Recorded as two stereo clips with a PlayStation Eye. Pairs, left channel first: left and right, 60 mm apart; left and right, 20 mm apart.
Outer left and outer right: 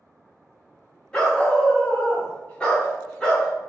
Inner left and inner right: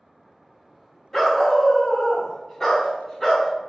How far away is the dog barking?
About 1.0 m.